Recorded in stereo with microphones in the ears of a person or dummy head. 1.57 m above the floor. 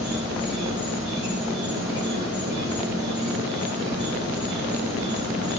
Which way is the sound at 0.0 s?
45° right (ahead or behind).